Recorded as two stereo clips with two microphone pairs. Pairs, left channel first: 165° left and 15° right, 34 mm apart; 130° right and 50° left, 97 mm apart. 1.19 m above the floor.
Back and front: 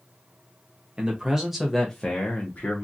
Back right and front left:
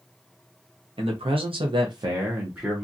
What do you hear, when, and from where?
1.0 s a man speaking: 40° left, 0.8 m; by 2.8 s 135° left, 0.8 m